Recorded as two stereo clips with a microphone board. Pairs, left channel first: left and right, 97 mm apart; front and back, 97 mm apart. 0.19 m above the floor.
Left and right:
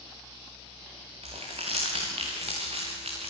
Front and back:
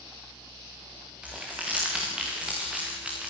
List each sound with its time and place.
1.2 s crumpling: 100° right, 5.5 m